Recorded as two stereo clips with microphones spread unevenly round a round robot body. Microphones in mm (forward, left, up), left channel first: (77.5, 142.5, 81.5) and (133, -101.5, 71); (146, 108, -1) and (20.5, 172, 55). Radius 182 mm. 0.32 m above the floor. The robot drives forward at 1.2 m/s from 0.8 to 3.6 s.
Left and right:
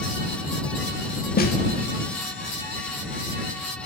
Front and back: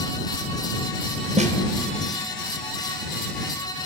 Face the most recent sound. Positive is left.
turn(degrees=170)